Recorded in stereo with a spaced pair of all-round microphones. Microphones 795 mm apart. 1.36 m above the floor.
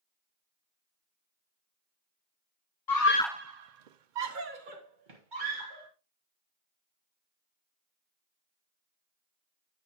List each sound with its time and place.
2.9 s a scream: 30° left (ahead or behind), 0.8 m; by 5.9 s 70° right (ahead or behind), 2.5 m